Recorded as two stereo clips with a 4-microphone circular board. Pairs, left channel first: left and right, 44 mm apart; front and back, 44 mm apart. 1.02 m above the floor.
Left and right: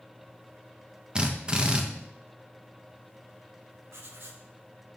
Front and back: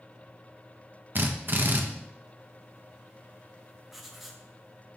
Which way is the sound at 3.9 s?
95° right.